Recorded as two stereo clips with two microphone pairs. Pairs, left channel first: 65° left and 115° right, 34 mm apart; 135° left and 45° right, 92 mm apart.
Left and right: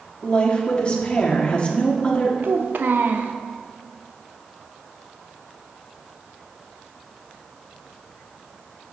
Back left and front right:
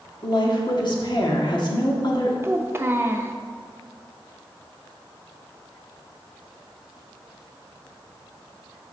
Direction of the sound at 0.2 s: 120° left.